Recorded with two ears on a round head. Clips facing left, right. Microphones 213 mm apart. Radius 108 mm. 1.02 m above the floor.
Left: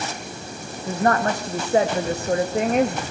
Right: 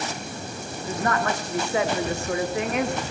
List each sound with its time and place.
0.9 s a woman speaking: 30° left (ahead or behind), 1.9 m